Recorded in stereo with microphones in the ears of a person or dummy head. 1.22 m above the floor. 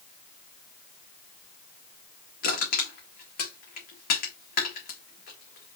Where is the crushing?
55° left (ahead or behind), 1.5 m.